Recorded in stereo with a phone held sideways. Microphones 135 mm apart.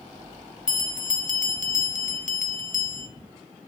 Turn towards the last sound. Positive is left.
turn(degrees=65)  # may be behind; listen again after turning